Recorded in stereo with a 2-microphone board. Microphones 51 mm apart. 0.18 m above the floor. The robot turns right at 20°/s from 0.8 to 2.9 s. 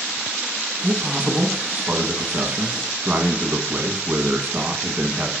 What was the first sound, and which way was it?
A man speaking, 130° right.